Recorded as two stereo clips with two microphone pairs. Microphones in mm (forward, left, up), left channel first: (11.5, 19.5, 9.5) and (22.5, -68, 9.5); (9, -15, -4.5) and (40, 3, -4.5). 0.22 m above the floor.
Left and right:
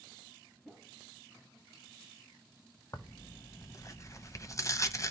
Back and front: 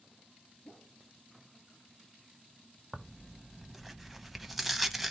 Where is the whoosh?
175° right, 3 m.